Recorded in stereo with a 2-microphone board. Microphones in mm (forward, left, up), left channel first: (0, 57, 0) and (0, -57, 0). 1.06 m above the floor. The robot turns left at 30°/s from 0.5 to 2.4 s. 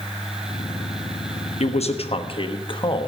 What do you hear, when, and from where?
1.6 s a man speaking: 70° left (ahead or behind), 1.2 m; by 3.1 s 50° left (ahead or behind), 1.2 m